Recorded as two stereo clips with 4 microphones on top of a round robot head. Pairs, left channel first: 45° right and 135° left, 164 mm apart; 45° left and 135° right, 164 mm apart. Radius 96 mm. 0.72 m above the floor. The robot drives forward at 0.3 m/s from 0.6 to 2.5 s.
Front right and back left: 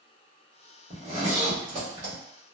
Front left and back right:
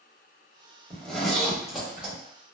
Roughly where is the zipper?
Behind left.